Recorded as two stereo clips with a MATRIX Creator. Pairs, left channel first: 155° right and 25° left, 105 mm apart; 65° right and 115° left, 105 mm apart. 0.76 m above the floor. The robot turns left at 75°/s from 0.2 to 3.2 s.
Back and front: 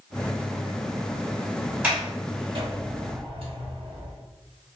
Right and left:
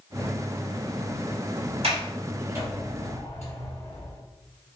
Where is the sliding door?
100° left, 2.5 m; by 4.2 s straight ahead, 2.5 m.